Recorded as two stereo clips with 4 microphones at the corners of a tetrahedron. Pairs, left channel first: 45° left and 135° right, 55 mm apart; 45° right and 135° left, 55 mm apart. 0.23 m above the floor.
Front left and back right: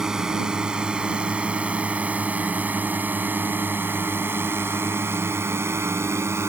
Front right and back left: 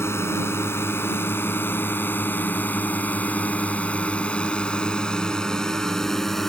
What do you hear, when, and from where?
0.0 s a drone: 60° right; by 6.5 s 130° right